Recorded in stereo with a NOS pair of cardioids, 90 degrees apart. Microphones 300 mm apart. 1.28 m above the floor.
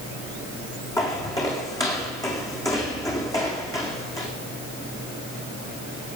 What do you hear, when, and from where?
1.0 s footsteps: 10° left, 4 m